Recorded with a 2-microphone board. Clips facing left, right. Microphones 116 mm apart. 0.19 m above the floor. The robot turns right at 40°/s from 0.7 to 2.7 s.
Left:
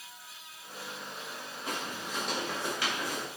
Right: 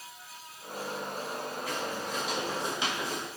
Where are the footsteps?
25° left (ahead or behind), 5.5 m; by 3.3 s 25° right (ahead or behind), 3.5 m.